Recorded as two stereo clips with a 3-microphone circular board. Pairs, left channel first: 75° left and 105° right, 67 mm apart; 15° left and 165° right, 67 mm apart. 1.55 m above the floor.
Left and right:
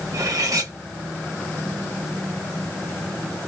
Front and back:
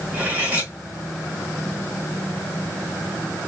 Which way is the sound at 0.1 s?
100° right.